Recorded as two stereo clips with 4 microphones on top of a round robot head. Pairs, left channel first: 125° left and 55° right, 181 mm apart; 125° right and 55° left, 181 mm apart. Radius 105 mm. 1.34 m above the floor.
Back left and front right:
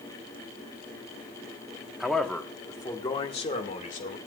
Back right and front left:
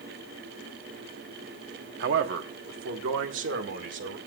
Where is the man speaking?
30° left, 1.5 m; by 4.2 s 75° left, 2.5 m.